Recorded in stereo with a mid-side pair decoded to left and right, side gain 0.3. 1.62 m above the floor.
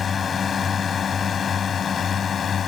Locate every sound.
0.0 s a drone: 60° left; by 2.7 s 70° left